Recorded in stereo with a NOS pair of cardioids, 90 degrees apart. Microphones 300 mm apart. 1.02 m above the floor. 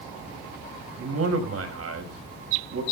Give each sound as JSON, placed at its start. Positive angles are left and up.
{"t": 1.0, "sound": "a man speaking", "azimuth_deg": -50, "distance_m": 6.0}